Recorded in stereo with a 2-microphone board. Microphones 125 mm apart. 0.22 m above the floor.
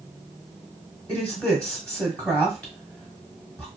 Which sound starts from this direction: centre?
A woman speaking, at 1.1 s.